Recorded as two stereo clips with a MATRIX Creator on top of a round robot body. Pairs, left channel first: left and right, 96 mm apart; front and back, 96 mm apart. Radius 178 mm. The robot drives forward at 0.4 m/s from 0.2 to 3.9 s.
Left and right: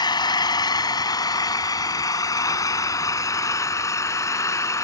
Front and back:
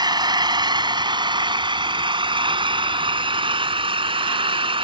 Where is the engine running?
135° left; by 4.8 s 150° left.